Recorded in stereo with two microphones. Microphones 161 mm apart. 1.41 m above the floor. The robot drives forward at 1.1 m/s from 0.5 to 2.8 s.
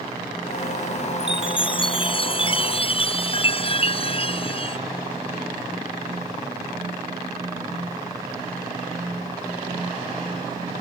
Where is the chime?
30° left (ahead or behind); by 4.8 s 35° left (ahead or behind).